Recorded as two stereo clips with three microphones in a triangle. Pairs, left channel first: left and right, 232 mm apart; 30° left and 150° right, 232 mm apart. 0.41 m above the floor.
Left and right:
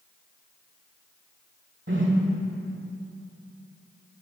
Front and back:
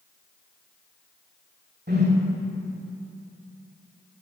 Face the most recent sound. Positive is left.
turn(degrees=-110)